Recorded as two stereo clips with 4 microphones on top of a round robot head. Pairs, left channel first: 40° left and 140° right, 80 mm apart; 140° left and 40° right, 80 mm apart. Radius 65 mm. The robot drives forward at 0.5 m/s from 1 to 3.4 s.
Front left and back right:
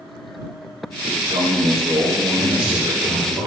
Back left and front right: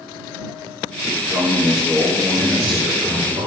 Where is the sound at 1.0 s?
120° right, 3 m; by 3.4 s 135° right, 4 m.